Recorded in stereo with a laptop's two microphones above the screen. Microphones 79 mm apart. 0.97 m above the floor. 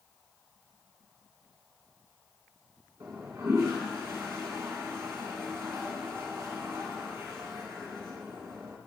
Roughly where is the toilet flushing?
Right.